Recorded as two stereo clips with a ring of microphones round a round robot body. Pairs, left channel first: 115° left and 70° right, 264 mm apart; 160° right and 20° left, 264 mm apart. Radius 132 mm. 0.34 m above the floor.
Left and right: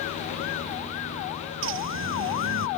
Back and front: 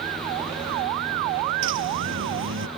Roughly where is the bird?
Ahead right.